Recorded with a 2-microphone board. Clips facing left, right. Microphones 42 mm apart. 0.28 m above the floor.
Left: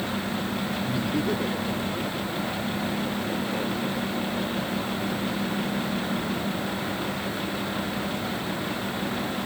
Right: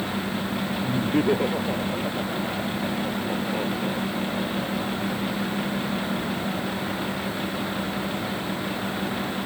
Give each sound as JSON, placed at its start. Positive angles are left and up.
{"t": 0.8, "sound": "laughter", "side_deg": -45}